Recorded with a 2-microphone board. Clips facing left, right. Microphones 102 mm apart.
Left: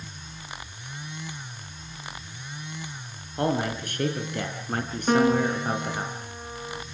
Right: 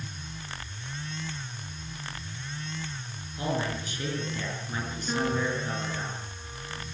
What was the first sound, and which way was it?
A man speaking, 60° left (ahead or behind).